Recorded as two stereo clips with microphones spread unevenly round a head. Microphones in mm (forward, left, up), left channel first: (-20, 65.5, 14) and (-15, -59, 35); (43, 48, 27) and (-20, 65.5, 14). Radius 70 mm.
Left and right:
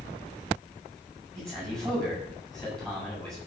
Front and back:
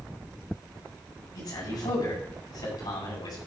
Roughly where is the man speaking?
Ahead.